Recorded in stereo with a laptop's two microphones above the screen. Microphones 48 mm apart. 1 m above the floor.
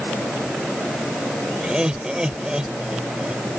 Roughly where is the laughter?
Centre.